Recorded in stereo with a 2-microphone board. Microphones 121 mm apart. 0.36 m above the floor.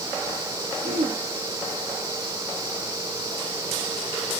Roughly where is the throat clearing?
Right.